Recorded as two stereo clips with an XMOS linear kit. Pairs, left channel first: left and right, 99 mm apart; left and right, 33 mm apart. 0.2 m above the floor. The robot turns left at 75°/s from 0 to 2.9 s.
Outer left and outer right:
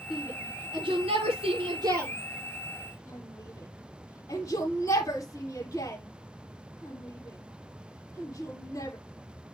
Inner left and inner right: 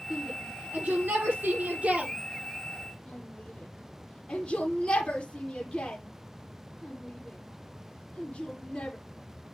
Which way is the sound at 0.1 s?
Centre (ahead or behind).